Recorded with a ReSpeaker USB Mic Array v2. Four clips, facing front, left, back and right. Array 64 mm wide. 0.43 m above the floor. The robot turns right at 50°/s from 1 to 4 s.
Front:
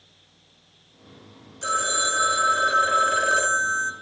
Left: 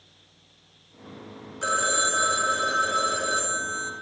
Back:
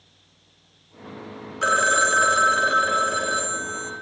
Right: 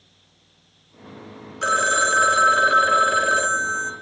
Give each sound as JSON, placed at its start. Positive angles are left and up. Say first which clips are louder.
{"t": 1.6, "sound": "a phone ringing", "louder": "right 6 dB, back 6 dB", "azimuth_deg": -155, "distance_m": 0.6}